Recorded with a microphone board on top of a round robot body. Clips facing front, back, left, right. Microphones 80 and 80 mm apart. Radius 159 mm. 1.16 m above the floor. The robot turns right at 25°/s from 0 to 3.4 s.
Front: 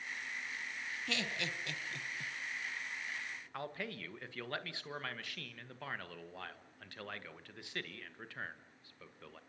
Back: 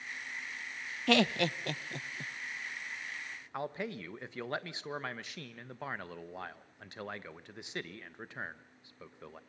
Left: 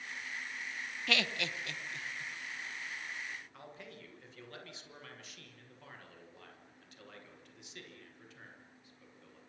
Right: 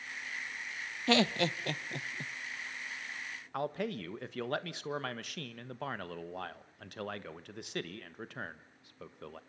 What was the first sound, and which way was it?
Laughter, 150° right.